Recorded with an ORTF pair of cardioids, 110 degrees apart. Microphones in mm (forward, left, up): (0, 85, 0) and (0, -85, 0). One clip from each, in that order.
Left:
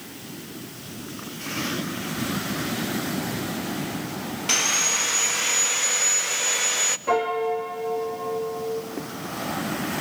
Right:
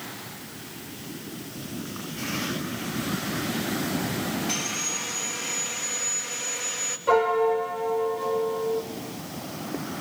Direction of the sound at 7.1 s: 10° left.